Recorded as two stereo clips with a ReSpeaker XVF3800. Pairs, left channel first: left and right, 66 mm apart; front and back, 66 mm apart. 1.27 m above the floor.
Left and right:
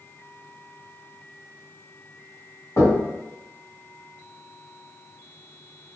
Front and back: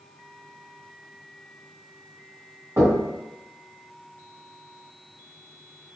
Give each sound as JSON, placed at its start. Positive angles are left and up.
{"t": 2.8, "sound": "knocking", "azimuth_deg": 130, "distance_m": 1.6}